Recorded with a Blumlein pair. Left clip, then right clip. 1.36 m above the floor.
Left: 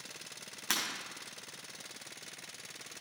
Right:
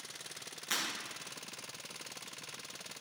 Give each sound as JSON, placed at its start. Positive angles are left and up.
{"t": 0.7, "sound": "breaking glass", "azimuth_deg": 40, "distance_m": 4.0}